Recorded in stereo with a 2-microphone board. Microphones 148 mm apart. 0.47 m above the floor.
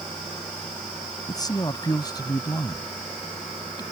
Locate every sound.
1.3 s a man speaking: 25° left (ahead or behind)